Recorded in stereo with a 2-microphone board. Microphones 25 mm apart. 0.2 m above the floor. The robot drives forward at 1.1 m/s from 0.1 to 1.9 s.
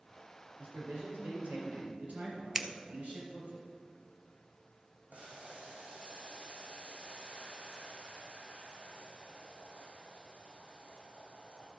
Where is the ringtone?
No ringtone in this recording.